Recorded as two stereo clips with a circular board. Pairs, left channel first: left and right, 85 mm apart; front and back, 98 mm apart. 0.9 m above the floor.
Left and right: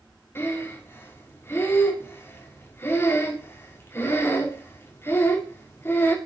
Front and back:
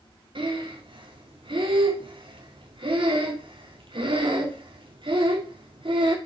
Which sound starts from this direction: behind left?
Breathing, at 0.3 s.